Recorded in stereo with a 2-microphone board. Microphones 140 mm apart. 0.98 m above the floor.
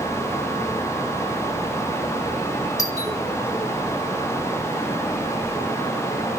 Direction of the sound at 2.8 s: 25° left (ahead or behind).